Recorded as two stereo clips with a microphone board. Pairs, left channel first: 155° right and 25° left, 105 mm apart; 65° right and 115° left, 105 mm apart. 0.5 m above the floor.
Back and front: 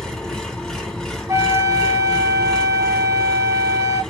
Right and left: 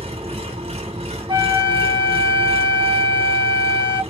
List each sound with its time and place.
0.0 s an engine running: 120° left, 1.5 m
1.3 s a flute: 80° left, 2.5 m